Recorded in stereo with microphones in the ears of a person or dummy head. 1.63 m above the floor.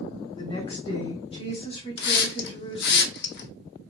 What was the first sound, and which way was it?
A woman speaking, 35° left (ahead or behind).